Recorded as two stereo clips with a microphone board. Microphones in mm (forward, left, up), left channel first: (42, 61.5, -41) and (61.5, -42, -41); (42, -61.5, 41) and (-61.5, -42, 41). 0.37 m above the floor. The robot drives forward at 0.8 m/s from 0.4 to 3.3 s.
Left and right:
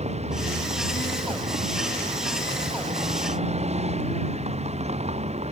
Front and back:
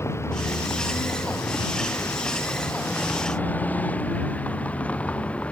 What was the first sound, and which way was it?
A vehicle, 75° right.